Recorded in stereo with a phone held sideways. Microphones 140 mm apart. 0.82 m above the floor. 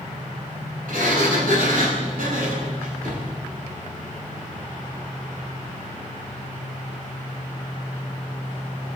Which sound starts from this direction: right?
A sliding door, at 0.9 s.